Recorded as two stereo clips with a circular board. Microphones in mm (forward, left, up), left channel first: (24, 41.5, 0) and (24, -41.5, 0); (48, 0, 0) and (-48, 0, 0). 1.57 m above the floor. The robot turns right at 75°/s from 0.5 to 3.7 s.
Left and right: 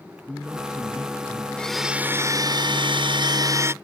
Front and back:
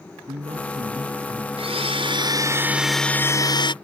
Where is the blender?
170° left; by 3.7 s 30° right.